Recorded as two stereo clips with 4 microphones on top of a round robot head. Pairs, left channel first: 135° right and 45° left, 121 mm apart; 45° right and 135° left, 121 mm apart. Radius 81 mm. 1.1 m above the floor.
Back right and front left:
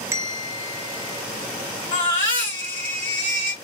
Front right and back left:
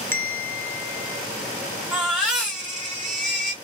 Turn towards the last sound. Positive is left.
turn(degrees=-140)